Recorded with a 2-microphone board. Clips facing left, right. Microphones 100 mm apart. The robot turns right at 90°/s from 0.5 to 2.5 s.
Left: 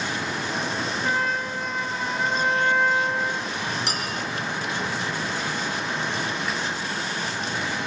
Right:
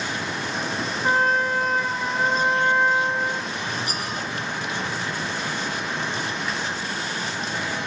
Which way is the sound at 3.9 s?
80° left.